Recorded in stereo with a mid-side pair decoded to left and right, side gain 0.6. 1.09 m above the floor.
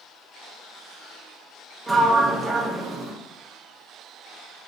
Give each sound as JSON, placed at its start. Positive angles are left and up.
{"t": 1.9, "sound": "a sliding door", "azimuth_deg": -15, "distance_m": 0.6}